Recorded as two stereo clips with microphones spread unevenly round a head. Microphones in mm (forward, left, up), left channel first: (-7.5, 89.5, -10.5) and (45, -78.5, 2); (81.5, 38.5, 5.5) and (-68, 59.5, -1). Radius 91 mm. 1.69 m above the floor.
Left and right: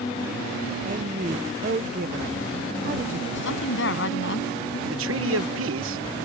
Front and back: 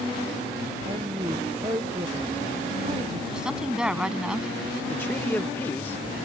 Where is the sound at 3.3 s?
85° left.